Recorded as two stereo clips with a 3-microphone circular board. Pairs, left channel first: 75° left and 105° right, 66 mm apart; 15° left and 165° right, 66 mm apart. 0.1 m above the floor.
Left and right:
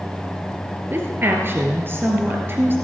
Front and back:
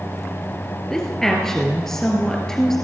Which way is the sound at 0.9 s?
65° right.